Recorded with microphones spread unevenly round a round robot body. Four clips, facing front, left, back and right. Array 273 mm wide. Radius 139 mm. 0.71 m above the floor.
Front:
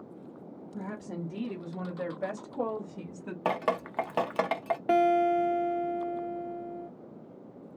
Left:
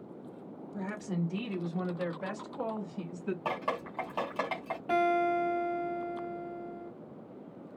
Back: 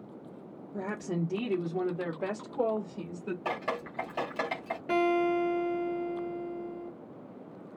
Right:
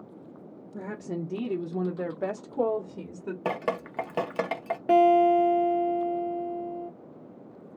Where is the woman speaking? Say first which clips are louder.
Right 2 dB, back 5 dB; 150° right, 0.9 m; by 3.4 s 85° right, 1.5 m.